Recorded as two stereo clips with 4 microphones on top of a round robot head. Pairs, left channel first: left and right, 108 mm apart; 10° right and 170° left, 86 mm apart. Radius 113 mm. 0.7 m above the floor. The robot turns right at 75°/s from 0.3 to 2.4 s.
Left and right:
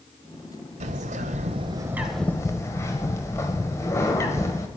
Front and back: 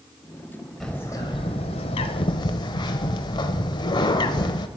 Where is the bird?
100° right, 0.8 m; by 4.7 s 20° left, 0.8 m.